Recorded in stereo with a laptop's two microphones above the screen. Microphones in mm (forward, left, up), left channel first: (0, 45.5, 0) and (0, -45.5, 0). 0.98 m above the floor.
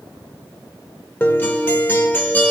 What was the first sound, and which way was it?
A guitar, 20° left (ahead or behind).